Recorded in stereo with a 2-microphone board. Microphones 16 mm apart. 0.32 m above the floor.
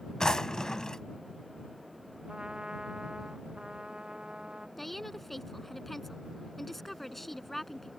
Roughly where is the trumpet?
Right.